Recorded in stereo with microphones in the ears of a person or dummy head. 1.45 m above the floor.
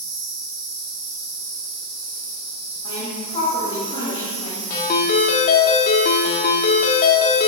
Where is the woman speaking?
45° left (ahead or behind), 2.5 m.